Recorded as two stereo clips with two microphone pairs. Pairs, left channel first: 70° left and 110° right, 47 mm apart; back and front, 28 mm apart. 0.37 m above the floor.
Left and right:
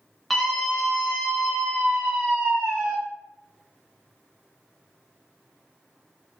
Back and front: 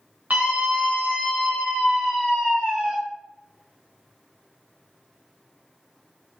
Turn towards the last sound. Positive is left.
turn(degrees=-50)